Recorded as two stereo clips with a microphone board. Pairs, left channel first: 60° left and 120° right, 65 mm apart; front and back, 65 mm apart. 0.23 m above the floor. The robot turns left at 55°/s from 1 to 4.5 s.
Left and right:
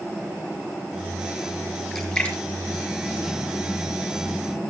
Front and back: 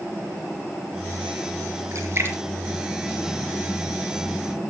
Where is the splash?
150° left, 4.5 m; by 4.0 s 35° left, 4.5 m.